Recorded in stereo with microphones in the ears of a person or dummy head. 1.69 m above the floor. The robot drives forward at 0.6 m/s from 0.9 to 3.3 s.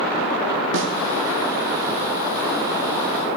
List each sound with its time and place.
0.7 s a snare drum: 70° right (ahead or behind), 0.7 m